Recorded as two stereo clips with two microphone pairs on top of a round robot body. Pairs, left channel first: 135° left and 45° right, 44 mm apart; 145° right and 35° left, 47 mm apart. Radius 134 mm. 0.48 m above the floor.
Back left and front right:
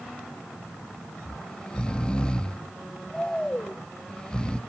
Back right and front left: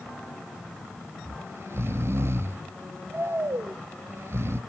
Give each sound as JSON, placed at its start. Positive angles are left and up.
{"t": 1.2, "sound": "snoring", "azimuth_deg": 65, "distance_m": 0.5}